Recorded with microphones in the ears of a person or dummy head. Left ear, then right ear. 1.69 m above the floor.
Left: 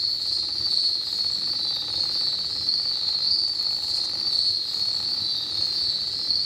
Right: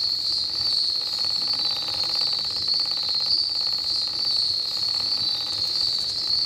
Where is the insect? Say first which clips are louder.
Right 1 dB; 15° left (ahead or behind), 2 m.